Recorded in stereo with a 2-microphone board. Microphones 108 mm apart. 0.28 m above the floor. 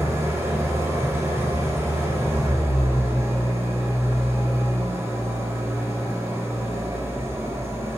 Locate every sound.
0.0 s an engine running: 25° right (ahead or behind), 4.5 m